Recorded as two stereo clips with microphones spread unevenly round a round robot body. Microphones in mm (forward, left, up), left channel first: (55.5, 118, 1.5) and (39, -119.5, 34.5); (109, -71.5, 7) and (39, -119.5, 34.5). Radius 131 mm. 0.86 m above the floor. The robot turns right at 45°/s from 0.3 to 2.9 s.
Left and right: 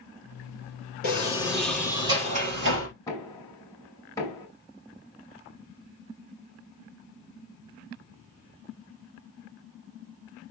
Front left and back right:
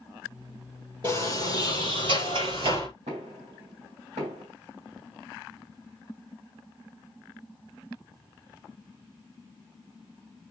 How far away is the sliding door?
About 4.5 m.